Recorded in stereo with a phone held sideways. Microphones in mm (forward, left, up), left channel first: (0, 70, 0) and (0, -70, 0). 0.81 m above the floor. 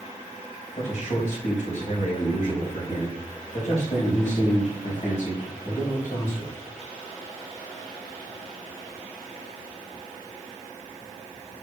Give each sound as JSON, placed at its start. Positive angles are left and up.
{"t": 0.8, "sound": "a man speaking", "side_deg": 60, "distance_m": 4.0}